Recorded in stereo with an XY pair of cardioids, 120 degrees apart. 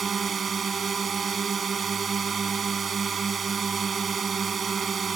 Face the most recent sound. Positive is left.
turn(degrees=-35)